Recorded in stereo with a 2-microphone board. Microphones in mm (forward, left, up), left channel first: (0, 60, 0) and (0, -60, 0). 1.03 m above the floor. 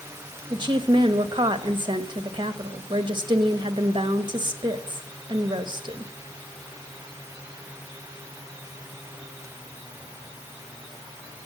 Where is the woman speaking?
40° right (ahead or behind), 0.9 m.